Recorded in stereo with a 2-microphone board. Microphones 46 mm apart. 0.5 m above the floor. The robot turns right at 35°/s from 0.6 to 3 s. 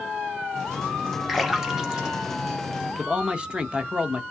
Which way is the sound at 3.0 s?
20° right (ahead or behind).